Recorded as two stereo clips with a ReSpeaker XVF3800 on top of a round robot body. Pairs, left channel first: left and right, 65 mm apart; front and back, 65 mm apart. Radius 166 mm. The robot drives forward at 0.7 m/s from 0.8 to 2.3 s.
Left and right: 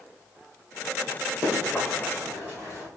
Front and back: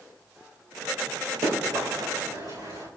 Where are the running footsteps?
170° left, 2.5 m; by 2.9 s 165° left, 4.5 m.